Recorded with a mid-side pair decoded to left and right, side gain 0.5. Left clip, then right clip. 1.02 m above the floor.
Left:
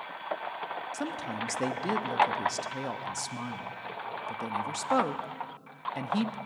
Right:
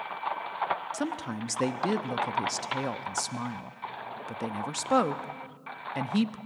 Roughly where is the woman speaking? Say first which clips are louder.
Right 1 dB; ahead.